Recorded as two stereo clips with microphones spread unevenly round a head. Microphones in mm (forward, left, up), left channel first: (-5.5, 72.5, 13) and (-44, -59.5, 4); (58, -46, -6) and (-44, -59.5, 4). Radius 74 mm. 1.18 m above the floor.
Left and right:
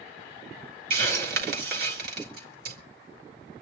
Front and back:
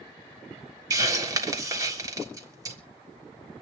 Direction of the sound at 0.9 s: 115° right.